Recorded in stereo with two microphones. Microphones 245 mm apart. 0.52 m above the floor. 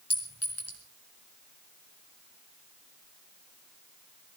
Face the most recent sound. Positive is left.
turn(degrees=85)